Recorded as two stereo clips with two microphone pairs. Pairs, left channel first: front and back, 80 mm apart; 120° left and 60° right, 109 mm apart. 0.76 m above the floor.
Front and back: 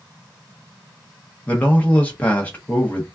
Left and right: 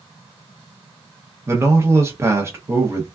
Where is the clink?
No clink in this recording.